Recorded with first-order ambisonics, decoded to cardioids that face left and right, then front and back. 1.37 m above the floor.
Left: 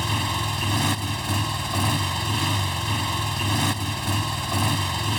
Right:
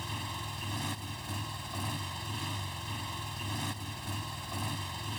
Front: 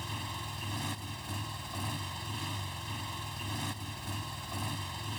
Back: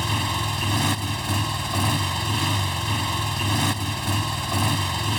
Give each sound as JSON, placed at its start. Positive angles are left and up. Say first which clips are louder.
{"t": 0.0, "sound": "a motorcycle", "louder": "left 13 dB, back 15 dB", "azimuth_deg": 135}